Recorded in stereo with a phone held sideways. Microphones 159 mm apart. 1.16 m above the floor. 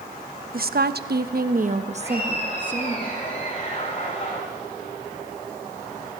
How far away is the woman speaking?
About 1.0 m.